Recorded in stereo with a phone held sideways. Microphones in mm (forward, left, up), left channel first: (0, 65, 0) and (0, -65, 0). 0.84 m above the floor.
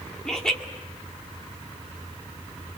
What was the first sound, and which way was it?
Laughter, 5° left (ahead or behind).